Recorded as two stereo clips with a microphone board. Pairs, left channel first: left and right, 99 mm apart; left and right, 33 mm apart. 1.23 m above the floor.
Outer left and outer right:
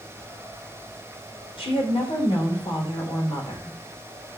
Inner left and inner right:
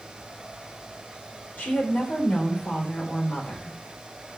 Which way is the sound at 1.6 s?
70° left (ahead or behind).